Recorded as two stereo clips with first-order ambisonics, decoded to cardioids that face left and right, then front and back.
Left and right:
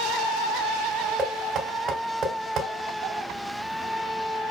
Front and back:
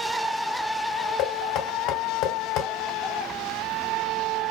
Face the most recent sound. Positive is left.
turn(degrees=-25)